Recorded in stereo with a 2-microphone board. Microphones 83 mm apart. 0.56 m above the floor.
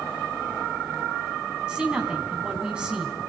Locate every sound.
1.7 s a woman speaking: 10° right (ahead or behind), 5 m